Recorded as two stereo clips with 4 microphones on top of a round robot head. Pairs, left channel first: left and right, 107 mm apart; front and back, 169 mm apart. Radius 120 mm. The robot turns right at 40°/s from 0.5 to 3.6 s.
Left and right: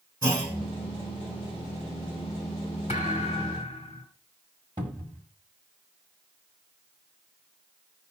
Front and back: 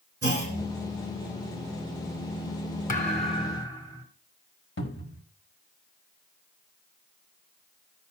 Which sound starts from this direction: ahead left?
A thud, at 2.9 s.